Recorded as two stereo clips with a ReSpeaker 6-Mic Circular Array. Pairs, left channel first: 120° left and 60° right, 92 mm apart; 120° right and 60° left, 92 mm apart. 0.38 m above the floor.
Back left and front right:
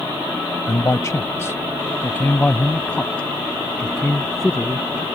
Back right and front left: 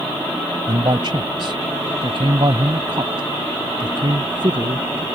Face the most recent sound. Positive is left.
turn(degrees=35)